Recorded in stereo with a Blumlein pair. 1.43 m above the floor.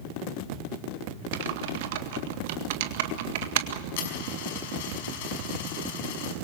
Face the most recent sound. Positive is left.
turn(degrees=50)